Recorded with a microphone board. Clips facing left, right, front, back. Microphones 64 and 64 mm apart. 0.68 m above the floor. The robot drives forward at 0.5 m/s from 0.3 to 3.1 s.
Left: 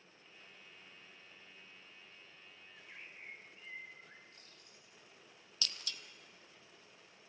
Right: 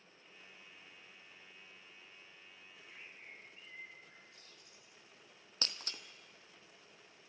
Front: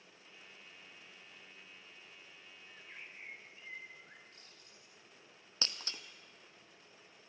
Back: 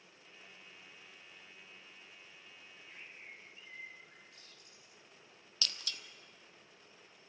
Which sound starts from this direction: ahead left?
A bird, at 2.7 s.